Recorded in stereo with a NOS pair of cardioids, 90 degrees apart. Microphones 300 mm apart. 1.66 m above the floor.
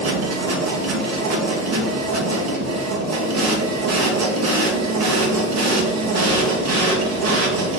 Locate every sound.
0.0 s a machine running: 65° right, 1.6 m